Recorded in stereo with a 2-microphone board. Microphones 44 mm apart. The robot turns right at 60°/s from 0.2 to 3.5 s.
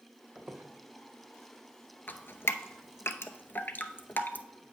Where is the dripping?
45° left (ahead or behind), 0.6 m; by 4.5 s 50° left (ahead or behind), 0.6 m.